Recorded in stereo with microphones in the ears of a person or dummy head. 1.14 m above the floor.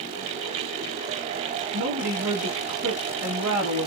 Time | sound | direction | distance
1.7 | a woman speaking | 70° right (ahead or behind) | 1.5 m